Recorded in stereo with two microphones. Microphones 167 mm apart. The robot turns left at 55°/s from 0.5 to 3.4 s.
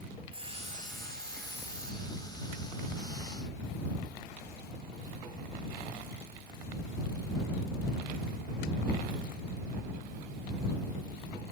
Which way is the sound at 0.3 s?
35° right.